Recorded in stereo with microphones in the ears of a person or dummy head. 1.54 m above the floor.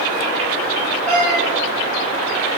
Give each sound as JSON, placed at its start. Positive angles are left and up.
{"t": 1.1, "sound": "a cat meowing", "side_deg": 10, "distance_m": 1.5}